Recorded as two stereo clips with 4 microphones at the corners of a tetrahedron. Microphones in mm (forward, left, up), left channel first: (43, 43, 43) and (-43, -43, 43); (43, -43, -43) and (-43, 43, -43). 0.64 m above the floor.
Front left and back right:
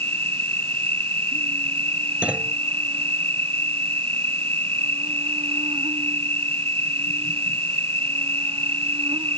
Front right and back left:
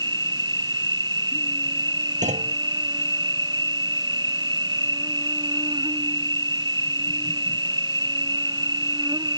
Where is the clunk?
145° left.